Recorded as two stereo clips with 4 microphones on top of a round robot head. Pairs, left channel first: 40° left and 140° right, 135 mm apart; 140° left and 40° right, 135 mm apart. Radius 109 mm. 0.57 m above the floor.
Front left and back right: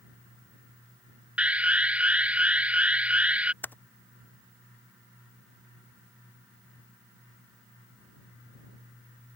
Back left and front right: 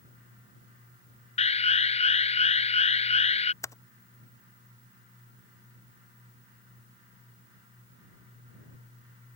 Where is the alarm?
145° left.